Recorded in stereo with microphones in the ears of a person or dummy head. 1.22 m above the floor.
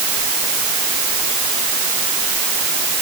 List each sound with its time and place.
Only background noise.